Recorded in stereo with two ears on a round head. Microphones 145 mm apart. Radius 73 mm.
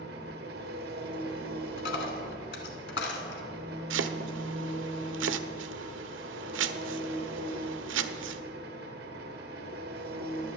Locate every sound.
0.0 s an engine running: 65° right (ahead or behind), 1.1 m
1.8 s a dropped coin: 75° left (ahead or behind), 1.9 m
3.9 s chopping: 80° right, 0.6 m